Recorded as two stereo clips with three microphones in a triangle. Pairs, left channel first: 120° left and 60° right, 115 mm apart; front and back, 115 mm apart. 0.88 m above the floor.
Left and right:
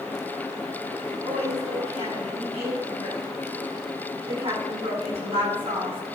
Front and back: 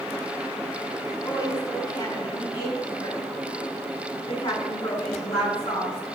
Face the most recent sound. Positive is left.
turn(degrees=-30)